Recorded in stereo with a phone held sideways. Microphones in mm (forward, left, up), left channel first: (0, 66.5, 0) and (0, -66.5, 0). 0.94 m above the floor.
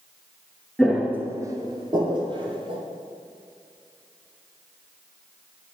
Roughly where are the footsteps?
Centre.